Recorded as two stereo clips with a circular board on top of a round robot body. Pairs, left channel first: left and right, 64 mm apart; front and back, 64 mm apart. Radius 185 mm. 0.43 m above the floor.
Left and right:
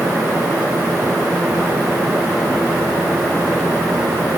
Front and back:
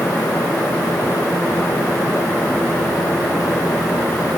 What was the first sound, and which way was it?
Only background noise.